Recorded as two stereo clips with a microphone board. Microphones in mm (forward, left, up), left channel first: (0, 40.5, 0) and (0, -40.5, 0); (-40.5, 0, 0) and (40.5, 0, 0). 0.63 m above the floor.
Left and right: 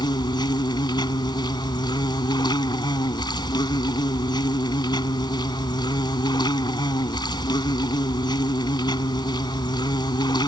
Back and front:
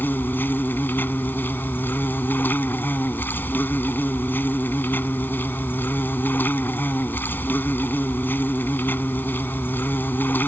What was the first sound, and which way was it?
An insect, 115° left.